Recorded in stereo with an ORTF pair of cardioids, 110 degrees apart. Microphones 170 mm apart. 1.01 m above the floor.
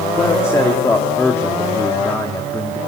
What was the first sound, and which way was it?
A man speaking, 15° left.